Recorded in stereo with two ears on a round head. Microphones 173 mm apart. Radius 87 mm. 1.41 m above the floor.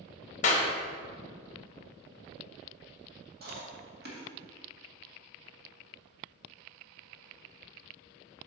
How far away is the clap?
About 1.1 m.